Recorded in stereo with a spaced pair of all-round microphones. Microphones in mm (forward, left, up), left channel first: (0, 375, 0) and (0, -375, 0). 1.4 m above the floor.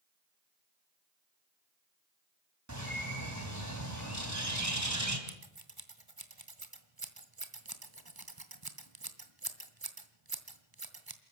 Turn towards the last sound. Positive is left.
turn(degrees=-30)  # may be behind; listen again after turning